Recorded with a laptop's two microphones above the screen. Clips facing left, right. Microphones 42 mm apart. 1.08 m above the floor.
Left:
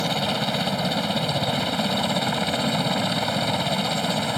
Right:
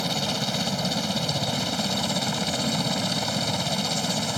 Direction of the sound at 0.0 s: 20° left (ahead or behind).